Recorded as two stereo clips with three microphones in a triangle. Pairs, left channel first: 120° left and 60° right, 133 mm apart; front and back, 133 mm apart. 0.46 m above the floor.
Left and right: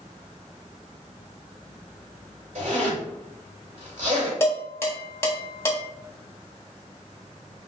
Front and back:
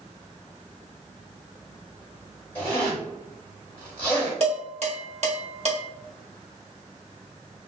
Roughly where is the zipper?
Right.